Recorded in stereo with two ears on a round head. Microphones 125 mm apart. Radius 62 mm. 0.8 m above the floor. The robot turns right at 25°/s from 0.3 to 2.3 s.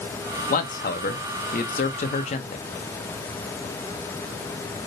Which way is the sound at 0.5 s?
80° left.